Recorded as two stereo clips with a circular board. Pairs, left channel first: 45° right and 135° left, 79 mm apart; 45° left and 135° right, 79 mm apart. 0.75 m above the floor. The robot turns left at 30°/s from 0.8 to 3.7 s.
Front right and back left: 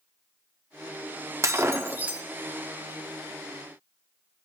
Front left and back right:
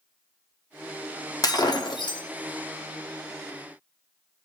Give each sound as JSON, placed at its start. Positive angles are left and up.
{"t": 1.4, "sound": "breaking glass", "azimuth_deg": 85, "distance_m": 0.6}